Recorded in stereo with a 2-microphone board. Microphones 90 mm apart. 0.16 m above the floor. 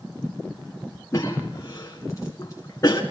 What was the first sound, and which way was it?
A cough, 35° left (ahead or behind).